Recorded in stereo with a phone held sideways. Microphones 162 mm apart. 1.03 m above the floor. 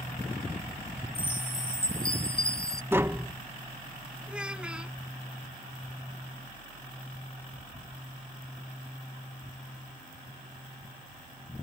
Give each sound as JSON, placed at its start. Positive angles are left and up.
{"t": 1.1, "sound": "a chime", "side_deg": 85}
{"t": 2.9, "sound": "tapping", "side_deg": -15}
{"t": 4.3, "sound": "a child speaking", "side_deg": -5}